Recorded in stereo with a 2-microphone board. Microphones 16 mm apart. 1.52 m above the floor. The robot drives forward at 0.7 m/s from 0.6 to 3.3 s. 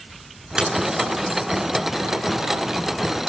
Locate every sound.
0.6 s a dropped coin: 60° right (ahead or behind), 8.5 m